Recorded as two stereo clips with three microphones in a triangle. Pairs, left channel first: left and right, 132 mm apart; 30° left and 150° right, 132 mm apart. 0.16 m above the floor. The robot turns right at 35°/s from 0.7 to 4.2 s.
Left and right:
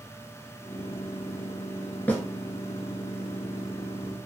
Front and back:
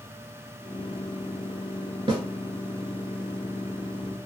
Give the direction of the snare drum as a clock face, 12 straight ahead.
6 o'clock.